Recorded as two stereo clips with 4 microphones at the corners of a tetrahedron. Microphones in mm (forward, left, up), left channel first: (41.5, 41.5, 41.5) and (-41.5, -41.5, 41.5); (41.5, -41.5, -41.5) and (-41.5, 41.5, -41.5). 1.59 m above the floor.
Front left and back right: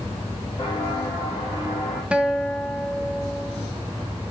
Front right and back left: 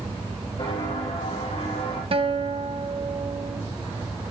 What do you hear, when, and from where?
0.6 s footsteps: 5° right, 5.5 m; by 2.0 s 20° right, 6 m
2.1 s a guitar: 145° left, 1.0 m